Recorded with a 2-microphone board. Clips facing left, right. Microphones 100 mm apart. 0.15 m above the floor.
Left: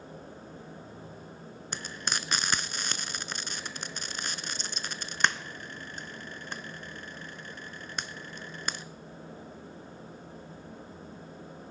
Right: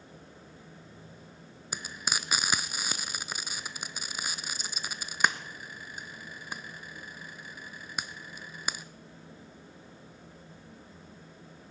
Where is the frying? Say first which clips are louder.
Even; 5° right (ahead or behind), 0.5 m.